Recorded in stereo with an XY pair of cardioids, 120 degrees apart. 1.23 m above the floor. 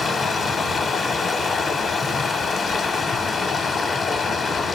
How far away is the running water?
About 0.7 m.